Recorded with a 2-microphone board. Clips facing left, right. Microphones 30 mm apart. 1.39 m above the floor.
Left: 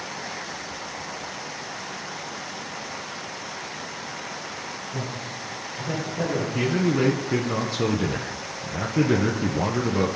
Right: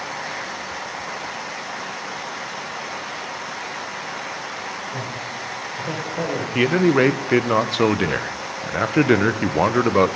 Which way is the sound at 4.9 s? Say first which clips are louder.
Right 3 dB; 55° right (ahead or behind).